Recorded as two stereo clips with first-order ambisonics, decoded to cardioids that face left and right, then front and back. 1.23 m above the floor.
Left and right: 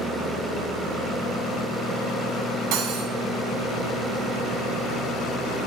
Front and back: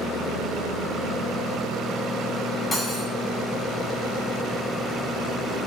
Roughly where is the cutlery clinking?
Right.